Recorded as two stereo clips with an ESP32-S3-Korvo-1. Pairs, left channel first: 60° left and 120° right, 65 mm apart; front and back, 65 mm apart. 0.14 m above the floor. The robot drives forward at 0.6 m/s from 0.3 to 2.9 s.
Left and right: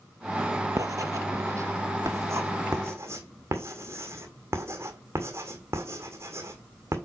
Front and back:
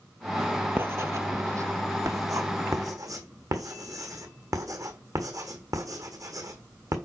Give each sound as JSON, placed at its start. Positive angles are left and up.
{"t": 0.8, "sound": "writing", "azimuth_deg": -130, "distance_m": 0.7}